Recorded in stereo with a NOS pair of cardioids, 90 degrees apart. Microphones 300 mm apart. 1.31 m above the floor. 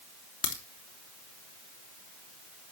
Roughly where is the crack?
Ahead left.